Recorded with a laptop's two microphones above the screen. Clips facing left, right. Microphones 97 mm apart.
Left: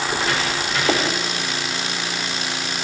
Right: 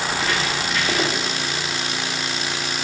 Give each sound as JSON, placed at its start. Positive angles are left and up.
{"t": 0.1, "sound": "footsteps", "side_deg": 15, "distance_m": 7.5}